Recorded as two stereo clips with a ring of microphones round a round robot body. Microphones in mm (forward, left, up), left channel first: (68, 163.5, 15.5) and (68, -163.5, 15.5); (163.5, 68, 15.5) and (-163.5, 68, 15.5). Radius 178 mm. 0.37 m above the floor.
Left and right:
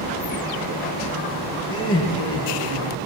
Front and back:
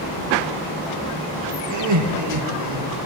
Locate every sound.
1.7 s laughter: 145° left, 7 m